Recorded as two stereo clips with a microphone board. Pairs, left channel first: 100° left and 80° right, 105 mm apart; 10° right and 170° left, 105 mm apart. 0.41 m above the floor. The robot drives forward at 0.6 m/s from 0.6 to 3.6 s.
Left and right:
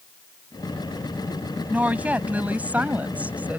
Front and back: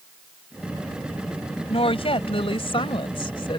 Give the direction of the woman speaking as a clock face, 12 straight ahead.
12 o'clock.